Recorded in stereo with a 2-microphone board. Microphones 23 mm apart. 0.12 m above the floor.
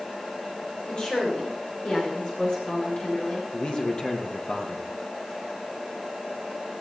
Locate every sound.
0.8 s a woman speaking: 40° left (ahead or behind), 8.5 m; by 3.4 s 50° left (ahead or behind), 9.5 m
3.5 s a man speaking: 40° left (ahead or behind), 3 m